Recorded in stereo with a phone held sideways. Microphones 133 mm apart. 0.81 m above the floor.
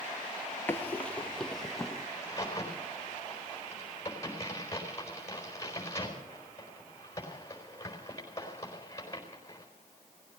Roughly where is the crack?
Centre.